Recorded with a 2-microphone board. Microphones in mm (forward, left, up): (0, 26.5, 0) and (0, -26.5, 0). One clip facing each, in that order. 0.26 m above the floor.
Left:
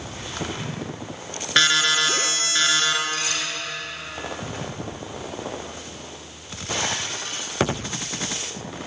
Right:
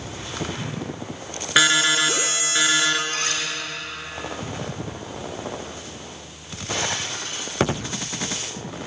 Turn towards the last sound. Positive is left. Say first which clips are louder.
# right 1 dB
turn(degrees=-45)  # may be behind; listen again after turning